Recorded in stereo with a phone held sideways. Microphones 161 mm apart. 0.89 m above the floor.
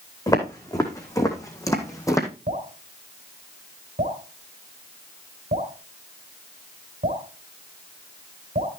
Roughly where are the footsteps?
Left.